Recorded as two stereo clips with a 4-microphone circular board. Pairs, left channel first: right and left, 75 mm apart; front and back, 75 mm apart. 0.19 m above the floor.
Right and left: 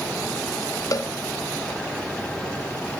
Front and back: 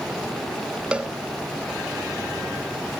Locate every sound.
0.9 s a cowbell: 105° right, 0.5 m